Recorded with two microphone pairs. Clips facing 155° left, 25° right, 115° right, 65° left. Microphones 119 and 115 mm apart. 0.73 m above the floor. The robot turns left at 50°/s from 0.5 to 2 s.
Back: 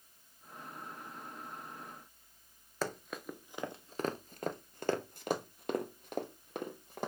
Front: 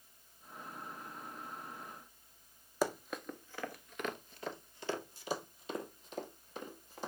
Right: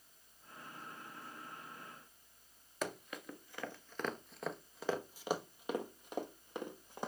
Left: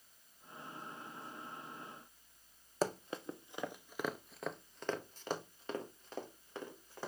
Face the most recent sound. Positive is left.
turn(degrees=175)